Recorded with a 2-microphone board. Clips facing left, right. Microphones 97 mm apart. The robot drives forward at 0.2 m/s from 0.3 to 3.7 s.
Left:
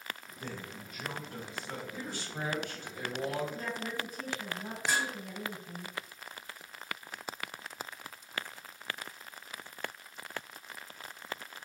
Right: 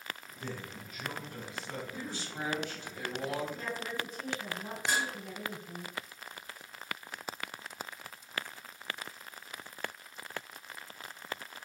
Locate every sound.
0.4 s a man speaking: 35° left (ahead or behind), 1.0 m; by 1.8 s 45° left (ahead or behind), 0.8 m
1.9 s a man speaking: 55° left (ahead or behind), 1.2 m; by 3.5 s 50° left (ahead or behind), 1.4 m
3.5 s a woman speaking: centre (ahead or behind), 1.7 m
4.9 s dishes clattering: centre (ahead or behind), 1.6 m